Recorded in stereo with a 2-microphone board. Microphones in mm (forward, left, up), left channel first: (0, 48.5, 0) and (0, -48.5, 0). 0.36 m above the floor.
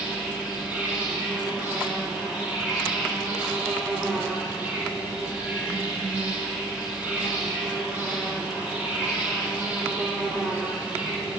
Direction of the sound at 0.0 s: 15° right (ahead or behind).